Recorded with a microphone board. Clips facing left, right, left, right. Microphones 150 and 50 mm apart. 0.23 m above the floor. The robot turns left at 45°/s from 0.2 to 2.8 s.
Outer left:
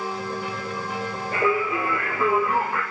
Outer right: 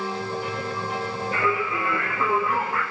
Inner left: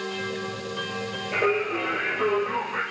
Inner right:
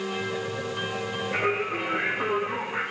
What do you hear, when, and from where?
1.3 s singing: 125° left, 5 m; by 2.8 s 60° left, 5 m